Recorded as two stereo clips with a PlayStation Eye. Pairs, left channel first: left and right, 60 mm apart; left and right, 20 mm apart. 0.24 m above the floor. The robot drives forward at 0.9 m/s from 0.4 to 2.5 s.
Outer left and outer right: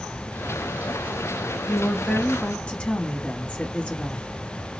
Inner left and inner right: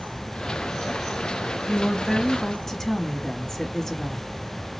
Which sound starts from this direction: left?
A woman speaking, at 1.7 s.